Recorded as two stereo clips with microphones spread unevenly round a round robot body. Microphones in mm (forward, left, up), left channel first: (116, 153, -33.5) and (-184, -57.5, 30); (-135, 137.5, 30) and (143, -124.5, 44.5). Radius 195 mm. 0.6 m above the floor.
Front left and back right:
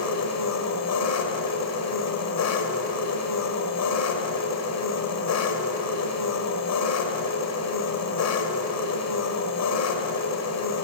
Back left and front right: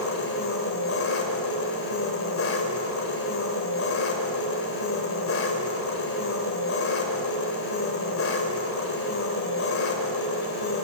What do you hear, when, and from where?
0.0 s an engine running: 80° left, 1.7 m